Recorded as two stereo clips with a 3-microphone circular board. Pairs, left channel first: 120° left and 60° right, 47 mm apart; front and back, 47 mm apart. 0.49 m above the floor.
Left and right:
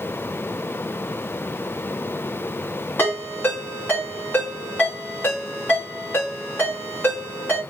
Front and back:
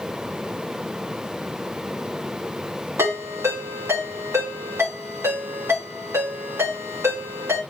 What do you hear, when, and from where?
3.0 s a ringtone: 165° left, 3 m